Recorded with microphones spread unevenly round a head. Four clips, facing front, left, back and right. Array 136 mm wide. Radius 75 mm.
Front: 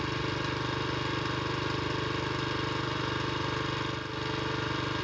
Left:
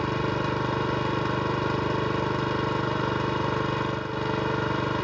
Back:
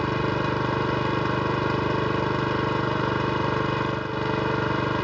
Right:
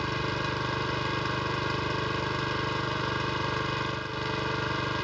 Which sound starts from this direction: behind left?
An engine running, at 0.0 s.